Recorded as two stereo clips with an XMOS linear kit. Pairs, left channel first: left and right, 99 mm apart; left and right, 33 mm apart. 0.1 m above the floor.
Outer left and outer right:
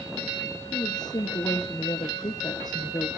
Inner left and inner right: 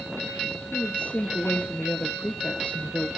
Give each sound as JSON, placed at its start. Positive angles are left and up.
{"t": 0.7, "sound": "a woman speaking", "side_deg": 45, "distance_m": 1.8}